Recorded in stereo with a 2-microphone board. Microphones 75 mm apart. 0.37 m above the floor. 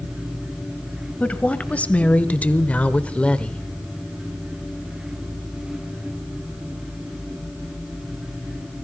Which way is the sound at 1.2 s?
20° left (ahead or behind).